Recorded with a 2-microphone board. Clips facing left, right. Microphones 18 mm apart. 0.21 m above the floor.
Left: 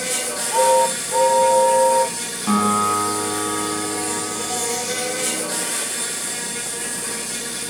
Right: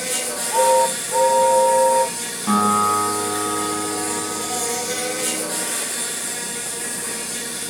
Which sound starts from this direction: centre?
A guitar, at 2.5 s.